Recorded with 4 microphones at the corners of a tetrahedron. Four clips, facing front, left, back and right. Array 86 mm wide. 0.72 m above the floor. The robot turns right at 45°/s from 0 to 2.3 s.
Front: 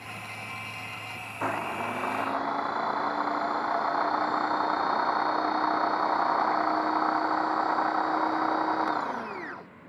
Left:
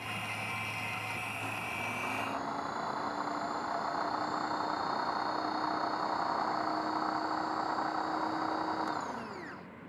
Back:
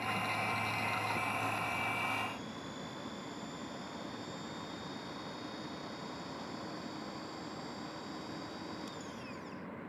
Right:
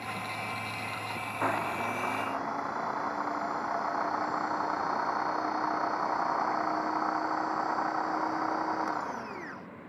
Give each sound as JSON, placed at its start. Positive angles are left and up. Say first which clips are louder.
{"t": 1.4, "sound": "a blender", "louder": "right 8 dB, front 6 dB", "azimuth_deg": -50}